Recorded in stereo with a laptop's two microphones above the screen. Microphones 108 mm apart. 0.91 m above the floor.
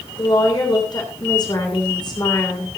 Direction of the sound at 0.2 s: 40° left (ahead or behind).